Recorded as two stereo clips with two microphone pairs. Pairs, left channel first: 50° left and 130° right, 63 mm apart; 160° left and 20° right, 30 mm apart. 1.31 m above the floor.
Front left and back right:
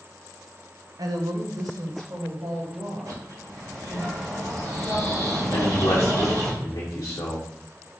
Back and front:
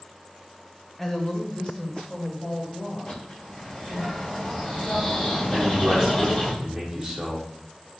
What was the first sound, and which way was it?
A woman speaking, 120° right.